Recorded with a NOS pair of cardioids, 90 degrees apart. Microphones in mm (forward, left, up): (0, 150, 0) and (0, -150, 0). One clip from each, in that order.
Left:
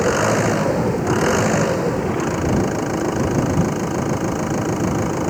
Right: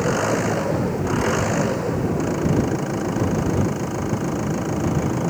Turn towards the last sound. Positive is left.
turn(degrees=35)